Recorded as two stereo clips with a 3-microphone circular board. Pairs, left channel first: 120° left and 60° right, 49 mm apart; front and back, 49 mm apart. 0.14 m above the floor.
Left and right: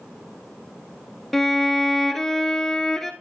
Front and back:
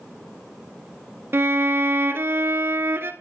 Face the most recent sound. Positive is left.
turn(degrees=-155)